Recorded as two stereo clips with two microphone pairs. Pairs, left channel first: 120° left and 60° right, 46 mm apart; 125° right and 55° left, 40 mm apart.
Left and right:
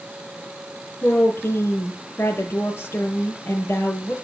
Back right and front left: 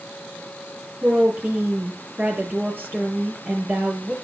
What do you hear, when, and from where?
1.0 s a woman speaking: 95° left, 6.5 m